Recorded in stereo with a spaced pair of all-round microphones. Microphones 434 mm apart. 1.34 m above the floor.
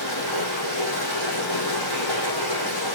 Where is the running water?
60° left (ahead or behind), 4 m.